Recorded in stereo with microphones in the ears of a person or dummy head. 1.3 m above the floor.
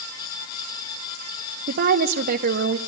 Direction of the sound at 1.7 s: 50° right (ahead or behind).